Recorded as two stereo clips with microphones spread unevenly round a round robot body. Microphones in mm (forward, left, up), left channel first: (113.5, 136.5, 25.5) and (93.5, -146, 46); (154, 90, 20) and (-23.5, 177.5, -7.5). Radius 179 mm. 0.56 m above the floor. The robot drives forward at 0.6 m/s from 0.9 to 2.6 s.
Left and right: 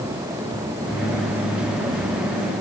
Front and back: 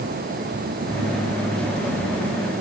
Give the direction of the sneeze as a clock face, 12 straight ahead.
No sneeze in this recording.